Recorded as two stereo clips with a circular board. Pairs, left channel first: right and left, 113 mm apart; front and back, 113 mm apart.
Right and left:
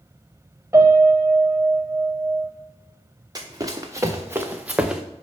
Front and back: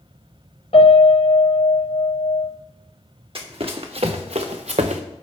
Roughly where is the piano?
Ahead.